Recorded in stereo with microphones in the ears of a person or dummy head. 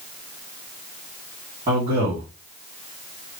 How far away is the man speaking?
About 2.5 m.